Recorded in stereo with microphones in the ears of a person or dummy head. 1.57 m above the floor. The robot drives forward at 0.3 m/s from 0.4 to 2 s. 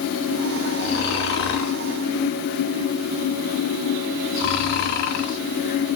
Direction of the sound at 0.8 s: 55° left (ahead or behind).